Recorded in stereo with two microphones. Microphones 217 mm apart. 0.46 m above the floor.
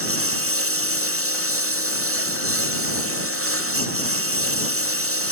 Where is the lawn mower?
90° right.